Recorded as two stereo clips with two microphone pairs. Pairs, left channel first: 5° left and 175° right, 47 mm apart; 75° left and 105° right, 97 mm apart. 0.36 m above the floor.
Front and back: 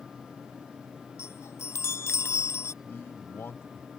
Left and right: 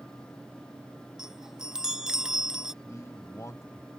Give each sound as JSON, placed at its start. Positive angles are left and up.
{"t": 1.2, "sound": "a chime", "azimuth_deg": -20}
{"t": 2.8, "sound": "a man speaking", "azimuth_deg": 20}